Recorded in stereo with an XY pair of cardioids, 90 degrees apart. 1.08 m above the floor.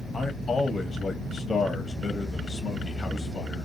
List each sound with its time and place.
0.1 s a man speaking: 35° left, 0.9 m